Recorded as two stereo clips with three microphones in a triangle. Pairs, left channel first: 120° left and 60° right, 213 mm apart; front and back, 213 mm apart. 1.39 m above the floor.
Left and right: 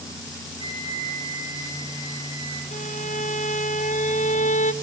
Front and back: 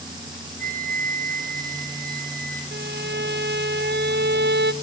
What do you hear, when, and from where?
0.6 s a flute: 130° right, 1.9 m
2.7 s a violin: 165° left, 0.6 m